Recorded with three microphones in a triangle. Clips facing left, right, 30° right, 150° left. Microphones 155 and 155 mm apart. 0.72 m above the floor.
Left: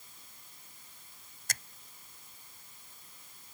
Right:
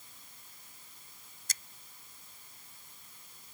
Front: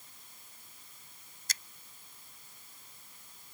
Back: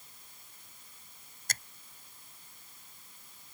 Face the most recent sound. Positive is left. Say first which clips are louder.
# left 8 dB, back 4 dB
turn(degrees=115)